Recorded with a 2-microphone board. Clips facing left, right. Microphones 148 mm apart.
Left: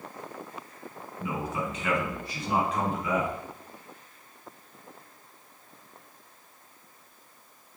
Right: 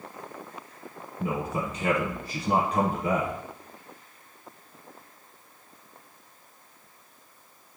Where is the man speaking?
45° right (ahead or behind), 1.4 m.